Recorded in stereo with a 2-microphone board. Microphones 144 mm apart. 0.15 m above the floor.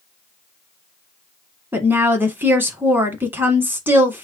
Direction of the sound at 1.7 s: 15° right (ahead or behind).